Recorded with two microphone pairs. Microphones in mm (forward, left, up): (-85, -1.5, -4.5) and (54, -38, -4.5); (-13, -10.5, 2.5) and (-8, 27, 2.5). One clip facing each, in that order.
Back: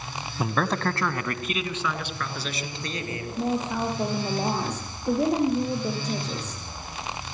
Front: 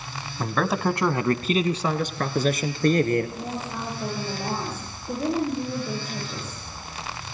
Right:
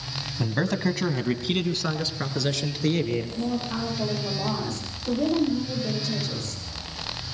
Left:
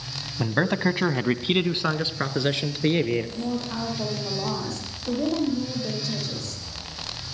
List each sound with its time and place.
0.4 s a man speaking: 105° left, 1.0 m; by 3.3 s 15° left, 3 m
3.4 s a woman speaking: 170° left, 10 m